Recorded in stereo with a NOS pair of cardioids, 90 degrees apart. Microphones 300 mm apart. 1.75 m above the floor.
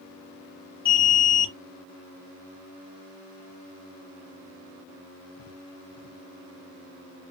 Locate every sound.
0.8 s an alarm: 15° left, 0.8 m